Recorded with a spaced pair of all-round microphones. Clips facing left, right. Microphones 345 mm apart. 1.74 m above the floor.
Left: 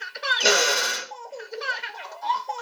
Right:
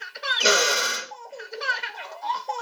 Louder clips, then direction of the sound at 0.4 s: Even; 5° right (ahead or behind).